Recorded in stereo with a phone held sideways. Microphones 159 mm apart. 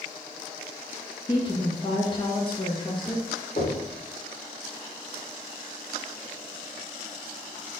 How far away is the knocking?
About 2.5 m.